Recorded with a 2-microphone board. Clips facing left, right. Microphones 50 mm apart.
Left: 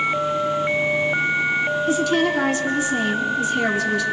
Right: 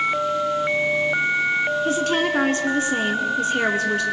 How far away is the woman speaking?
About 1.9 m.